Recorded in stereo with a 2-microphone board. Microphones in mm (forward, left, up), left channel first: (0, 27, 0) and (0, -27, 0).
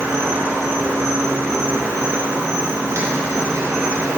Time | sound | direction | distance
0.0 | an insect | 75° right (ahead or behind) | 2.0 m